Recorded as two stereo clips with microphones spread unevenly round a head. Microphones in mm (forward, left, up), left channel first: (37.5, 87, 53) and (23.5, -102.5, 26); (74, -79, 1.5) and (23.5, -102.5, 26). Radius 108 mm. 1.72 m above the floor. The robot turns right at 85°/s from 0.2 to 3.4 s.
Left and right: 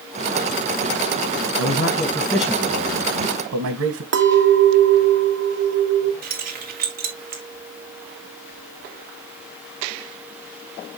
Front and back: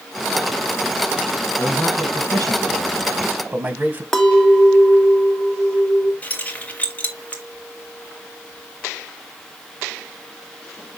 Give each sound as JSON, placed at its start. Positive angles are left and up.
{"t": 1.6, "sound": "a man speaking", "azimuth_deg": 105, "distance_m": 1.7}
{"t": 4.1, "sound": "a clink", "azimuth_deg": -70, "distance_m": 1.5}
{"t": 6.2, "sound": "keys jangling", "azimuth_deg": -50, "distance_m": 1.9}